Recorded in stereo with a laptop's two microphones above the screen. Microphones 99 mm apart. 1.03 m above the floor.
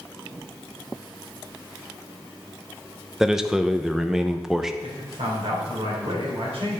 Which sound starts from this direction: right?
A man speaking, at 4.8 s.